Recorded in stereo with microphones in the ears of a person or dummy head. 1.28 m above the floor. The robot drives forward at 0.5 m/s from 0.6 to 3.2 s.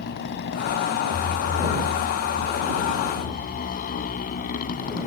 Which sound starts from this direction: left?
A motorcycle, at 0.0 s.